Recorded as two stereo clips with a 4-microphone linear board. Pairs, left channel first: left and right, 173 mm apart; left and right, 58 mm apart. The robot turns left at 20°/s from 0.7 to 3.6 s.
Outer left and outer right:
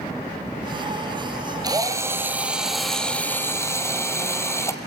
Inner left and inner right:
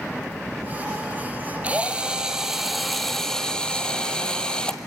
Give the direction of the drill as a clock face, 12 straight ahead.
5 o'clock.